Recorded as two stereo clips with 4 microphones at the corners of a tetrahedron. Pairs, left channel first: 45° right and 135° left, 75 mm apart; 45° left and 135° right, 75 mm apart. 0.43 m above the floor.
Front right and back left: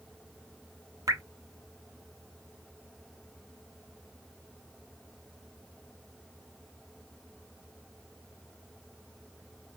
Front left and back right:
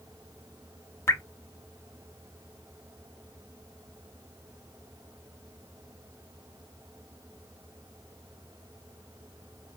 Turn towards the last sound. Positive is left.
turn(degrees=100)